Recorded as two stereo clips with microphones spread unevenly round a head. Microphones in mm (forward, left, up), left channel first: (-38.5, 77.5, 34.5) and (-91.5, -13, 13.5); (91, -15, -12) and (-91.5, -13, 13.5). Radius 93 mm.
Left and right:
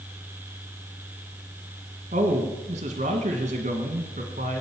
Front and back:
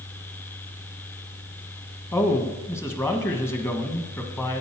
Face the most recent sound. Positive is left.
turn(degrees=-80)